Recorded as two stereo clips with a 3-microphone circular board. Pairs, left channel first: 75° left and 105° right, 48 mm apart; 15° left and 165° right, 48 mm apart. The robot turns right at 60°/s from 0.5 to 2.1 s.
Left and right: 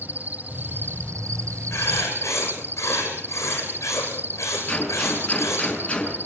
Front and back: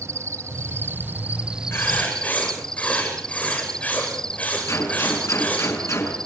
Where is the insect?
155° right, 0.8 m; by 6.3 s 60° right, 0.8 m.